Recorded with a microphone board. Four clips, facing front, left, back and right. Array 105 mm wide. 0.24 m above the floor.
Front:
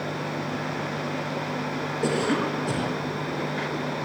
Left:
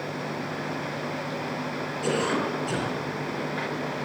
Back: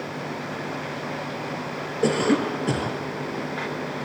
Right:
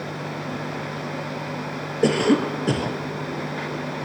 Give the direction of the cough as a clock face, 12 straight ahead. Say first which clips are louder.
Right 8 dB, back 4 dB; 4 o'clock.